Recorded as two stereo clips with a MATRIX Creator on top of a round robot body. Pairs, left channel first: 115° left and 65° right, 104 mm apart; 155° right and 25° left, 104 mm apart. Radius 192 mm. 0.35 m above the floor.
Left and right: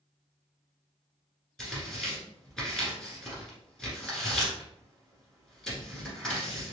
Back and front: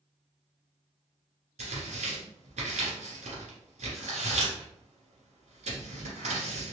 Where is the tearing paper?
25° left, 1.8 m.